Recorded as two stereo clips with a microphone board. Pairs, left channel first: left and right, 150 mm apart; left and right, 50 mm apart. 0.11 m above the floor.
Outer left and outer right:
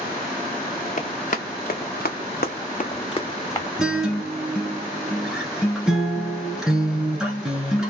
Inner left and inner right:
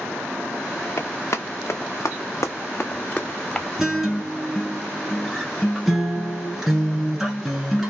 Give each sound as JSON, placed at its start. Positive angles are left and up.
{"t": 1.0, "sound": "running footsteps", "side_deg": 55, "distance_m": 1.3}
{"t": 3.8, "sound": "a guitar", "side_deg": -5, "distance_m": 1.2}